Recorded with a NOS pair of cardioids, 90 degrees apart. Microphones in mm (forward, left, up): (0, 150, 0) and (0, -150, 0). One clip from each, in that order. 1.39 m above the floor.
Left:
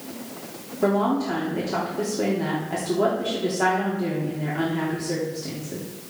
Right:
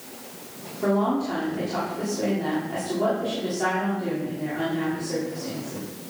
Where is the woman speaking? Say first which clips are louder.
Left 2 dB; 35° left, 3.5 m.